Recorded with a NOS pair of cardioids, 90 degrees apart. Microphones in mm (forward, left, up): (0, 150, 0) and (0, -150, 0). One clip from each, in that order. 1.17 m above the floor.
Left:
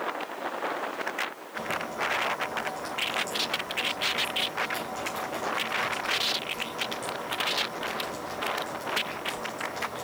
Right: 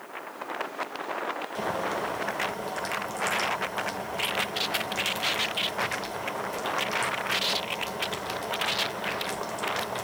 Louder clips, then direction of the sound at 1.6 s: Even; 55° right.